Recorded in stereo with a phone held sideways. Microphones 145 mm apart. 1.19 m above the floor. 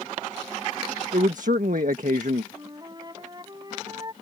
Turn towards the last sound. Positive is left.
turn(degrees=-30)  # may be behind; listen again after turning